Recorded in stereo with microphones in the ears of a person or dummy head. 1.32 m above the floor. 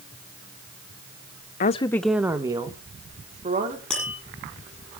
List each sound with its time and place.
1.6 s a woman speaking: 40° left (ahead or behind), 0.6 m; by 3.8 s 30° right (ahead or behind), 3 m
3.9 s tapping: 5° left (ahead or behind), 8.5 m